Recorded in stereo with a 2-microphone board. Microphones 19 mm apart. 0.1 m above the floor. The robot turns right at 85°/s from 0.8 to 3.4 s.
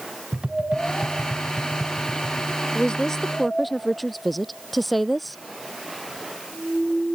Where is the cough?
No cough in this recording.